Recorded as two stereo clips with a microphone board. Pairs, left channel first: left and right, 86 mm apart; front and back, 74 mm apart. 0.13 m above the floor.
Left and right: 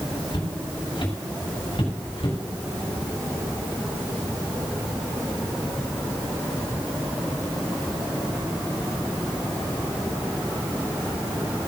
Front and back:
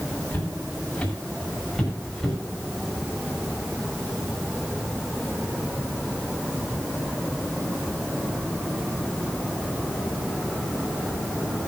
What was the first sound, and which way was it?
Footsteps, 70° left.